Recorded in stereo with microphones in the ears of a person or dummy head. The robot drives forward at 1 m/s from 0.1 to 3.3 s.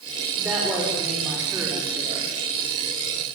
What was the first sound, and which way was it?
A woman speaking, 10° right (ahead or behind).